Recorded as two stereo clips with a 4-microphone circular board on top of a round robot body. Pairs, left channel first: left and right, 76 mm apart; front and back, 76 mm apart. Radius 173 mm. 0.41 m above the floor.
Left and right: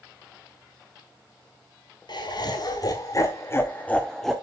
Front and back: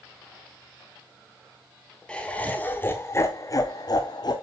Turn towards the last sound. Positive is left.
turn(degrees=0)